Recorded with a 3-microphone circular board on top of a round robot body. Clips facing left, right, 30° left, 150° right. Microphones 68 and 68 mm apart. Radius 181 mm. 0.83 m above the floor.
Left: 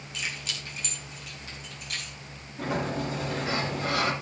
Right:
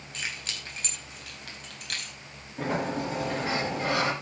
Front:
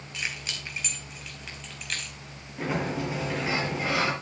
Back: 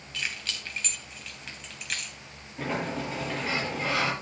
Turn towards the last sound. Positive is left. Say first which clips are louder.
# right 1 dB, front 2 dB
turn(degrees=-55)